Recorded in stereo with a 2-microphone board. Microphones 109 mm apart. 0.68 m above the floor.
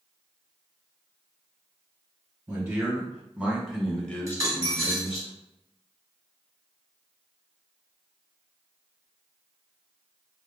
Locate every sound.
2.5 s a man speaking: 25° right (ahead or behind), 1.4 m; by 5.3 s 50° left (ahead or behind), 0.8 m
4.3 s a dropped coin: 25° right (ahead or behind), 1.1 m